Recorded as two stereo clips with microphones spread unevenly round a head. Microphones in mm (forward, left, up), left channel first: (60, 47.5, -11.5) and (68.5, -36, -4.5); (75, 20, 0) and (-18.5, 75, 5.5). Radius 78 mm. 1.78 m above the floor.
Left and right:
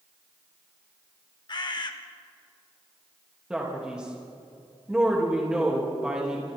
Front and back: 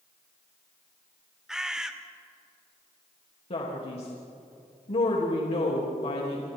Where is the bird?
65° left, 2.0 m.